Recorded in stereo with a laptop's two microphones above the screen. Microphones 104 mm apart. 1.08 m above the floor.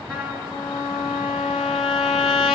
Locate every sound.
0.1 s a trumpet: 10° right (ahead or behind), 2.5 m